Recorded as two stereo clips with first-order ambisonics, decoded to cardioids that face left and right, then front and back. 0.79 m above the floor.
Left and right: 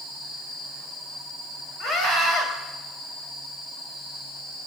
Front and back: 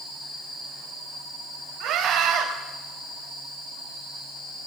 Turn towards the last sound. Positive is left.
turn(degrees=150)